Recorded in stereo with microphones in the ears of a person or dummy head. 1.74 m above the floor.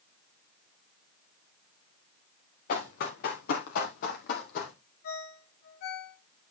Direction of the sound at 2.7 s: 45° left (ahead or behind).